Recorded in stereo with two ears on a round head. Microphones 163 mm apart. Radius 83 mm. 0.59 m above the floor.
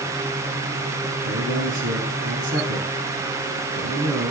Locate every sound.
1.2 s a man speaking: 80° right, 4 m